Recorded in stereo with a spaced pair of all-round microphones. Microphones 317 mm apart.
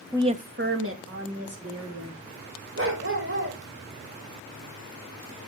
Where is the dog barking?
40° right (ahead or behind), 1.7 m.